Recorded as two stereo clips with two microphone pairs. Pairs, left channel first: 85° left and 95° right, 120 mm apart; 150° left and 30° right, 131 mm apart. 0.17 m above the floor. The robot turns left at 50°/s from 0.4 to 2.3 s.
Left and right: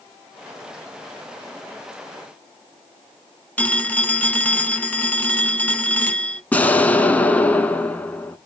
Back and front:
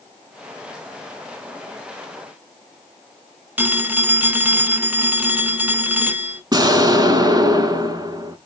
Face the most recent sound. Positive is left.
turn(degrees=20)